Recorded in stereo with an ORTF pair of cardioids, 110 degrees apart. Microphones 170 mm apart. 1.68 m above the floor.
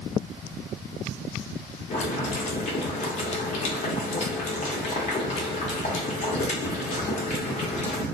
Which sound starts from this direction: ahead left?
Boiling, at 1.9 s.